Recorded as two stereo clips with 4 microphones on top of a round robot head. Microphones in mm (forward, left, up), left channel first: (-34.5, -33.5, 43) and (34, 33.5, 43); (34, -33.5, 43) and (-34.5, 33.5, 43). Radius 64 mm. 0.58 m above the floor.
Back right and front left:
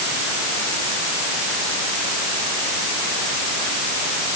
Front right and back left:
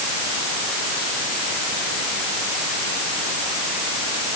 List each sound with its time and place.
Only background noise.